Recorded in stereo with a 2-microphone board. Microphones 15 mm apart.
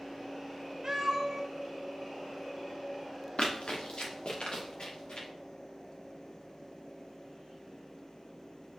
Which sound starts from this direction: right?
A cat meowing, at 0.8 s.